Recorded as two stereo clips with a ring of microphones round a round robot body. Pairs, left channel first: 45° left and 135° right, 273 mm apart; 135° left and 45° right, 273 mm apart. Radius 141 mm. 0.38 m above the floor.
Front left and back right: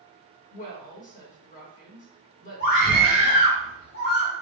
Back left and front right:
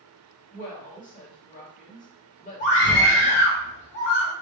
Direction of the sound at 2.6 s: 95° left.